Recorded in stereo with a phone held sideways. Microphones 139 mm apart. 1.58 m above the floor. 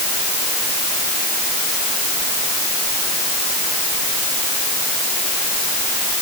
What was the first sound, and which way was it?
Only background noise.